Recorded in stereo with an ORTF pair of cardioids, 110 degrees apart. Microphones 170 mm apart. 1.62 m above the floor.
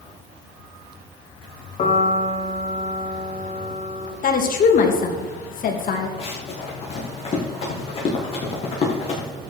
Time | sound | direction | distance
1.8 | a piano | 40° left | 2.5 m
4.2 | a woman speaking | 55° left | 2.5 m
6.2 | running footsteps | 35° left | 5.5 m